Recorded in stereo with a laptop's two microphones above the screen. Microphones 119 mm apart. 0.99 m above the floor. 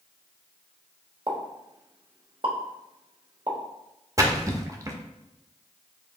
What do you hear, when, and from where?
1.3 s a pop: 45° right (ahead or behind), 1.3 m
4.2 s a splash: 30° right (ahead or behind), 0.6 m